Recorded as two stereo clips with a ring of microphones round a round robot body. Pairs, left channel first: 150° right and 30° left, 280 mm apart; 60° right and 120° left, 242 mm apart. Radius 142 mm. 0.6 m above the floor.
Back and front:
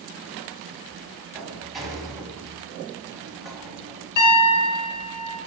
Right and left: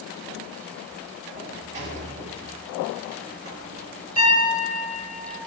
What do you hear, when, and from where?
1.4 s a sliding door: 120° left, 1.3 m
4.2 s a piano: 130° right, 1.8 m